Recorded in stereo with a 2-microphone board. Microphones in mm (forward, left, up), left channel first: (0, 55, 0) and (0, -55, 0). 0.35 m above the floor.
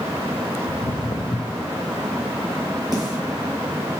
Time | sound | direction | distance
0.7 | footsteps | 70° left (ahead or behind) | 0.7 m
2.9 | a snare drum | 40° right (ahead or behind) | 6 m